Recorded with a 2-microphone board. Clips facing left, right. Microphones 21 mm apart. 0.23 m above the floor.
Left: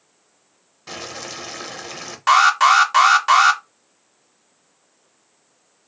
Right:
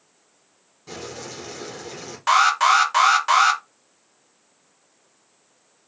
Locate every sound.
0.9 s boiling: 40° left (ahead or behind), 0.8 m
2.3 s an alarm: 10° left (ahead or behind), 0.6 m